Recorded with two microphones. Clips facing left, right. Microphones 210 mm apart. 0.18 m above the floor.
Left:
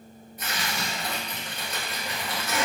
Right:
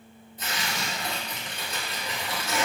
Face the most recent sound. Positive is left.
turn(degrees=-25)  # may be behind; listen again after turning